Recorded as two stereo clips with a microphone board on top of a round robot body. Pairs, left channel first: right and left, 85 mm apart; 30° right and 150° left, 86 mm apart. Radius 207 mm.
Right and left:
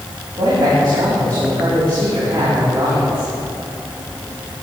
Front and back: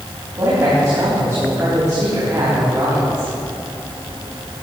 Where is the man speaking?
105° left, 4 m.